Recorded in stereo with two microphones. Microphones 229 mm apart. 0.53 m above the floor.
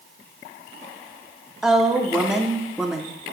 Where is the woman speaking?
Centre (ahead or behind), 0.8 m.